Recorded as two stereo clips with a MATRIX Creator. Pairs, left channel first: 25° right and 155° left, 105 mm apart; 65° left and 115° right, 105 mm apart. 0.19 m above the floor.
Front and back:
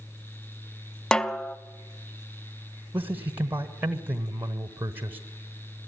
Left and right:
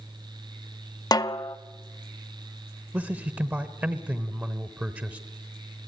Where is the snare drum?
55° left, 0.6 m.